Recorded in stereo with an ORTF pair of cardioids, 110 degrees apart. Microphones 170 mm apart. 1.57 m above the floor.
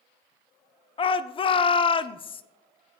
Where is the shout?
30° left, 0.6 m.